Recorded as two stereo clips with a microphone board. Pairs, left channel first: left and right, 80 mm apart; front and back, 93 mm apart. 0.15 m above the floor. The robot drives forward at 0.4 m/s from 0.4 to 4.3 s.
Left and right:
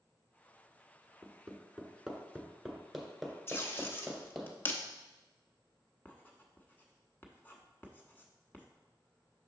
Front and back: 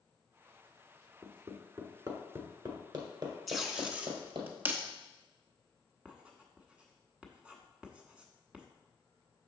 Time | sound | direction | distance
1.2 | hammering | 170° right | 1.0 m
3.5 | tape being pulled | 95° left | 0.8 m
6.0 | writing | 120° left | 0.9 m